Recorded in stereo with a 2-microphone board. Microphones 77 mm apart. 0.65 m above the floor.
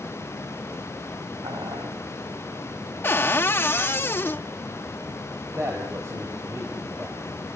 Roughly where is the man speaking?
Right.